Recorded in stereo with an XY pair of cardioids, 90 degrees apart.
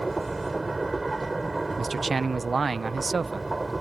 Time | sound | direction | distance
0.0 | a machine running | 25° right | ?
1.8 | a man speaking | 40° right | ?